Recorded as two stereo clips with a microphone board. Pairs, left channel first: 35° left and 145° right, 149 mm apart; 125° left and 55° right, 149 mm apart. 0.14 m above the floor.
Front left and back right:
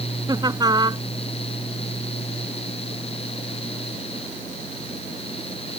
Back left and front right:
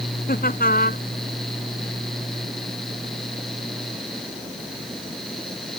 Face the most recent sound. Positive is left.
turn(degrees=150)